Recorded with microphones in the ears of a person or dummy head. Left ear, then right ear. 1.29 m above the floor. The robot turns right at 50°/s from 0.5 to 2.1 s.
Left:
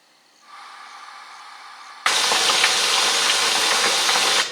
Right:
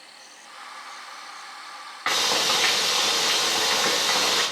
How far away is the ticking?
I don't hear ticking.